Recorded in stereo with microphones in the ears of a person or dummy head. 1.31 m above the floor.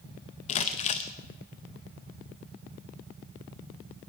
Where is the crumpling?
30° left (ahead or behind), 0.7 m.